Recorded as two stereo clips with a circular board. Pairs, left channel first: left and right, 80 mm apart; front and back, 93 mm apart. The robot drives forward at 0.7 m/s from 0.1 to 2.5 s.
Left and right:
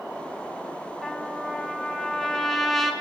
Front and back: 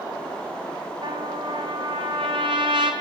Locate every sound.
1.0 s a trumpet: 175° left, 1.6 m; by 2.9 s straight behind, 2.5 m